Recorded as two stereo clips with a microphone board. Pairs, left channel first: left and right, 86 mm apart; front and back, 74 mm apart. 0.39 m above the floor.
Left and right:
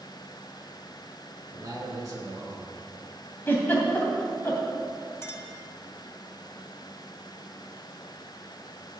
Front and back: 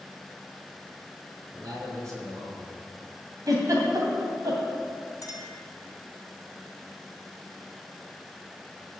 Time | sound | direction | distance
1.5 | a man speaking | 140° right | 3.5 m
3.5 | a giggle | 150° left | 2.5 m
5.2 | a clink | 35° left | 1.9 m